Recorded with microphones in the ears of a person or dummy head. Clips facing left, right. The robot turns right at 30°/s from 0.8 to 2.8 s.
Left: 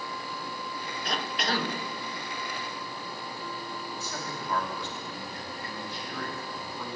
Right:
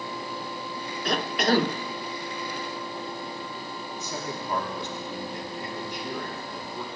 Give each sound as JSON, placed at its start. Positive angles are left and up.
{"t": 1.1, "sound": "a cough", "side_deg": -55, "distance_m": 1.1}
{"t": 4.0, "sound": "a man speaking", "side_deg": -20, "distance_m": 4.0}